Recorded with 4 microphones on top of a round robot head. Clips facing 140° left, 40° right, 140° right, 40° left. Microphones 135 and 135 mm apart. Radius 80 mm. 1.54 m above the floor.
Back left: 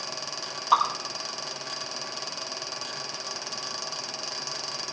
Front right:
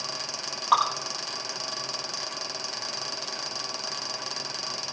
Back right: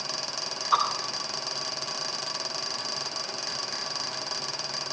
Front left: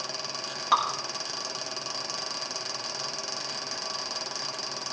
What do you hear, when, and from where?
0.7 s dripping: 55° left, 6.5 m